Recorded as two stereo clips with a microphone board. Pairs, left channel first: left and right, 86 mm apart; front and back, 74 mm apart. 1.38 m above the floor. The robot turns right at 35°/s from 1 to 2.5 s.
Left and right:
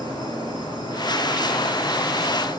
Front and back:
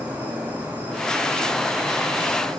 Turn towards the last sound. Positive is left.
turn(degrees=165)